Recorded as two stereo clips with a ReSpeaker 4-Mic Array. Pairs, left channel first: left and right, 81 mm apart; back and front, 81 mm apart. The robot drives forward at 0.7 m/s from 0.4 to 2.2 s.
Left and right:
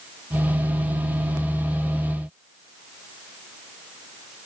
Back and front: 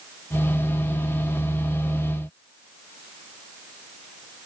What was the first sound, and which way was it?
Only background noise.